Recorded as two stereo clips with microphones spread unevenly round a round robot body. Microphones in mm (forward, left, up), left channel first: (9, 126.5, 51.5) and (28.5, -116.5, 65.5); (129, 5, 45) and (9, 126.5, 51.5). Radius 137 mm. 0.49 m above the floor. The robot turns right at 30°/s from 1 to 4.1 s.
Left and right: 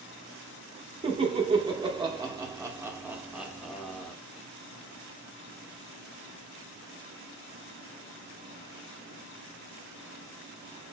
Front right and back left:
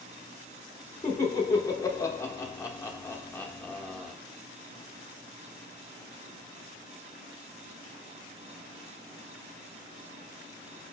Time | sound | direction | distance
1.0 | laughter | 65° right | 0.6 m